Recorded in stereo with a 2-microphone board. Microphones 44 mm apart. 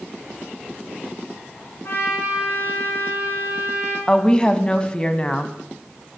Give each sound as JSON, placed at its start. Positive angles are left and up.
{"t": 1.8, "sound": "a trumpet", "side_deg": 60, "distance_m": 8.5}
{"t": 4.1, "sound": "a woman speaking", "side_deg": 20, "distance_m": 1.2}